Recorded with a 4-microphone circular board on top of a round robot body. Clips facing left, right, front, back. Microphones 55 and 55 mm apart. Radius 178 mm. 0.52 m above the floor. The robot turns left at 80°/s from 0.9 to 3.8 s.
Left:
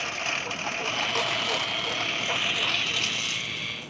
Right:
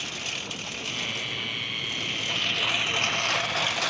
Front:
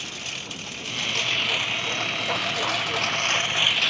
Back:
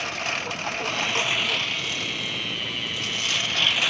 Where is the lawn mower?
140° left; by 3.9 s 95° right.